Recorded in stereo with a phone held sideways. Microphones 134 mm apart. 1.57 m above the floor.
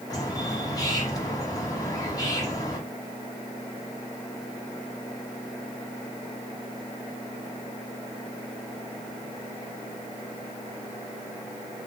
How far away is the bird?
About 1.1 m.